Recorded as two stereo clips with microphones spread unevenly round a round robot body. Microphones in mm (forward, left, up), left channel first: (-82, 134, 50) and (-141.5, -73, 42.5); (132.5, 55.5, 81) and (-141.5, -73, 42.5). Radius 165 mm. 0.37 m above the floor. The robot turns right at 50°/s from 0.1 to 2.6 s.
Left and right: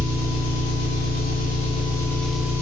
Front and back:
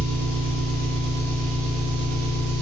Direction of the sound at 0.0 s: 55° left.